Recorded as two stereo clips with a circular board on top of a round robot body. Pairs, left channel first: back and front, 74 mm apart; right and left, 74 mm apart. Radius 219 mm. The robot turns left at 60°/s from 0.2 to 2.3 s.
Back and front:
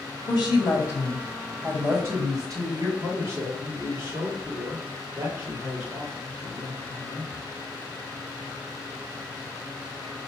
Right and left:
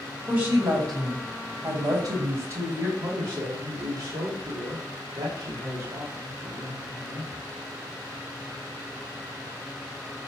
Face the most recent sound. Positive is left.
turn(degrees=75)